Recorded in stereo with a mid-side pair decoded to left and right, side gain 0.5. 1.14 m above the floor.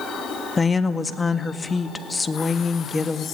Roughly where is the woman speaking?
Ahead left.